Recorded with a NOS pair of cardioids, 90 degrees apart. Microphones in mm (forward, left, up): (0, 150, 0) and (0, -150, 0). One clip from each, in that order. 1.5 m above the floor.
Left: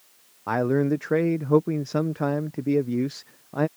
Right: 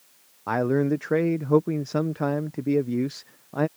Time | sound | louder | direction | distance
0.5 | a man speaking | even | straight ahead | ?